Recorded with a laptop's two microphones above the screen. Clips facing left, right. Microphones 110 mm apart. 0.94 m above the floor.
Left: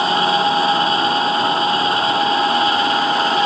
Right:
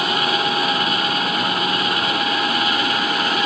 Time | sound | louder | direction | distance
0.0 | a machine running | left 5 dB | 30° left (ahead or behind) | ?